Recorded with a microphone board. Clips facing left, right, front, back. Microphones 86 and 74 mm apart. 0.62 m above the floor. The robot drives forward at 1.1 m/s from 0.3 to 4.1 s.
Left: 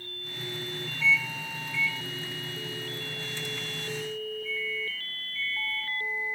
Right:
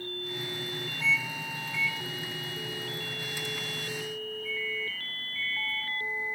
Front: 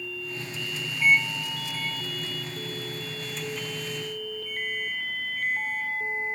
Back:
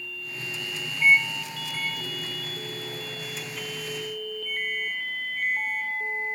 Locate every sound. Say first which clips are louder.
1.0 s a microwave: left 3 dB, back 2 dB; 120° right, 0.6 m; by 6.3 s 175° right, 3.5 m